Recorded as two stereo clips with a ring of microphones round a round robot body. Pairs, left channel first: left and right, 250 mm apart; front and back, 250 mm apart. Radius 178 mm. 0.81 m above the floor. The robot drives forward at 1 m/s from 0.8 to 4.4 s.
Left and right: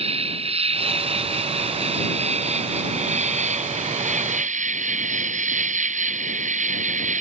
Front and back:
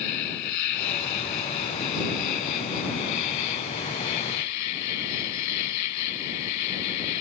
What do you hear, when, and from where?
0.0 s an insect: 25° right; by 7.2 s 30° right